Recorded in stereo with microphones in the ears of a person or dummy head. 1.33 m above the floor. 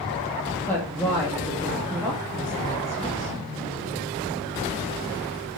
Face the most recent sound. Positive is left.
turn(degrees=10)  # may be behind; listen again after turning